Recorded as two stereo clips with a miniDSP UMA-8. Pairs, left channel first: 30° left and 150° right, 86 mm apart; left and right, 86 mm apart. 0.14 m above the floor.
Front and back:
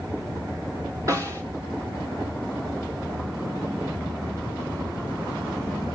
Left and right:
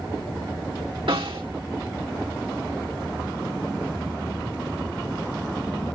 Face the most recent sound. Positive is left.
turn(degrees=-100)